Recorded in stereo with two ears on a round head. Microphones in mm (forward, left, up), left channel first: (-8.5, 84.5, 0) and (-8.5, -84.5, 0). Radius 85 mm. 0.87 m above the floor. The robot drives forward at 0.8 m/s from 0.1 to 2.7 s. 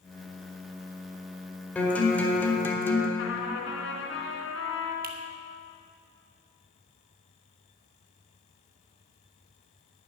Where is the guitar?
5° left (ahead or behind), 2 m; by 3.1 s 10° left (ahead or behind), 1.4 m.